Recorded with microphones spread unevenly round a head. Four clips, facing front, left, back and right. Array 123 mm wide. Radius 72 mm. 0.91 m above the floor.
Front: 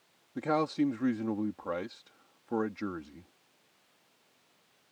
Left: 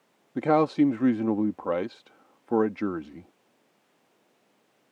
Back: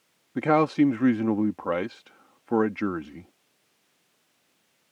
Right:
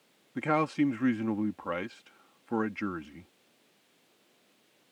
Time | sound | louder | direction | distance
0.3 | a man speaking | left 6 dB, back 8 dB | 115° left | ?